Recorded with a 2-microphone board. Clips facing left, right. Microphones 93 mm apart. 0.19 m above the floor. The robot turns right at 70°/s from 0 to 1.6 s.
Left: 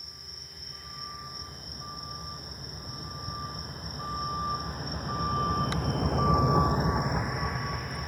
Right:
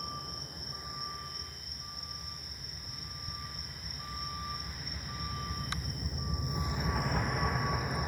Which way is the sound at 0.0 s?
75° right (ahead or behind).